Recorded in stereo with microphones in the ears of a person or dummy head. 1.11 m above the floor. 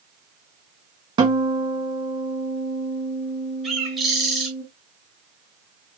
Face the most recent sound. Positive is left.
turn(degrees=0)  # may be behind; listen again after turning